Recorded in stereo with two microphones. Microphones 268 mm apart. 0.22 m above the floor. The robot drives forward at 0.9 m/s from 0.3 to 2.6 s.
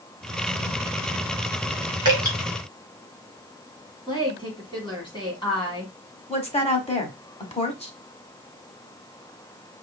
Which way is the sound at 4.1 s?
15° left (ahead or behind).